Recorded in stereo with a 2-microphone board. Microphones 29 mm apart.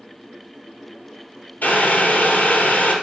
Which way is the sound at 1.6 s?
75° left (ahead or behind).